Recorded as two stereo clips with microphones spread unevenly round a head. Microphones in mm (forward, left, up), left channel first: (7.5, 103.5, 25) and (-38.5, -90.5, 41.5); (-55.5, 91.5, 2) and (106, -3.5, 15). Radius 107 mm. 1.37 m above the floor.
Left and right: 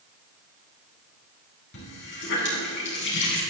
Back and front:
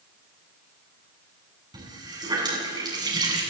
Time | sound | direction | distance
1.7 | a running tap | 40° left | 8 m